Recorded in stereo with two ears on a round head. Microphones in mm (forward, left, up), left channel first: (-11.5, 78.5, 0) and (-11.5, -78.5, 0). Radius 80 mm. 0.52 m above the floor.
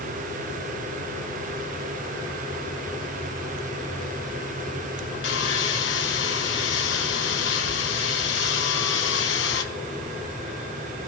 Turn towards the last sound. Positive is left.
turn(degrees=80)